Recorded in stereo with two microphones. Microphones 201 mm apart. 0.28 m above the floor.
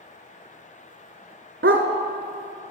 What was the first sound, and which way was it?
A dog barking, 70° right (ahead or behind).